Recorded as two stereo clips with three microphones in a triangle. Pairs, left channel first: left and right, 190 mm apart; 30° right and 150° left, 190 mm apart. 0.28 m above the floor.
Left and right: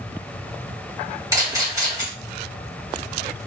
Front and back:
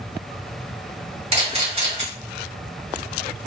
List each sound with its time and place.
1.3 s a camera shutter: 160° right, 3 m